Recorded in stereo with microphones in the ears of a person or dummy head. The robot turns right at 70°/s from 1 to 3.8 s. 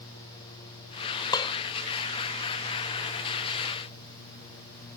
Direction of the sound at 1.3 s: 20° left (ahead or behind).